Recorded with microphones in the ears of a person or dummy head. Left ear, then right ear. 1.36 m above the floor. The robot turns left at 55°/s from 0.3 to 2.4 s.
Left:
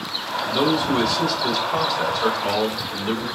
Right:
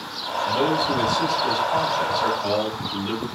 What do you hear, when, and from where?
0.5 s a man speaking: 90° left, 5 m; by 3.2 s 20° right, 5 m